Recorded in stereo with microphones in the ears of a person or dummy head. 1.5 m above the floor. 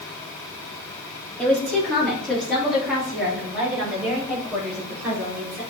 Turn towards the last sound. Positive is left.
turn(degrees=-10)  # may be behind; listen again after turning